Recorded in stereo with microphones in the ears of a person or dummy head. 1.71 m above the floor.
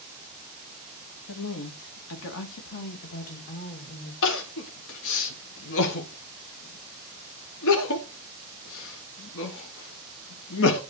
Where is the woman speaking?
85° left, 2.5 m; by 4.1 s 35° left (ahead or behind), 2.5 m.